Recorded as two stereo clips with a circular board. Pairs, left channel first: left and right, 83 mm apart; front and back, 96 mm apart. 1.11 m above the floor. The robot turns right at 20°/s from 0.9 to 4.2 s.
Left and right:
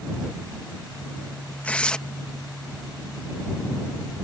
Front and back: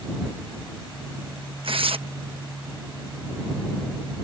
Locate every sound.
1.6 s tearing paper: 160° left; by 2.0 s 170° left